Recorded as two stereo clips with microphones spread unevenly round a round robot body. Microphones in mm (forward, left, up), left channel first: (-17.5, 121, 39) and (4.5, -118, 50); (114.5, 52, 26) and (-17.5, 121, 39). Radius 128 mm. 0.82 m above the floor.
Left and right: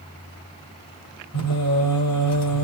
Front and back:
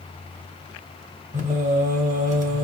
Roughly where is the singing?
Behind left.